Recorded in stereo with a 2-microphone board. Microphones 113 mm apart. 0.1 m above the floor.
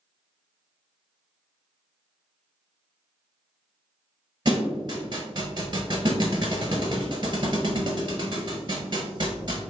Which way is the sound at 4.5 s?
40° right (ahead or behind).